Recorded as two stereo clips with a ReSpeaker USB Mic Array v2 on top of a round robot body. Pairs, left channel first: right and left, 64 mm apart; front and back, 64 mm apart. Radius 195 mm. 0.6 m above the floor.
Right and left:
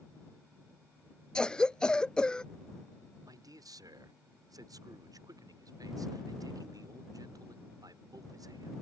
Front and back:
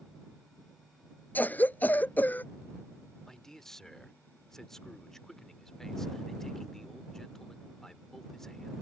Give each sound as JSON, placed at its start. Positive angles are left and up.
{"t": 1.4, "sound": "a cough", "azimuth_deg": -25}
{"t": 3.2, "sound": "a man speaking", "azimuth_deg": 80}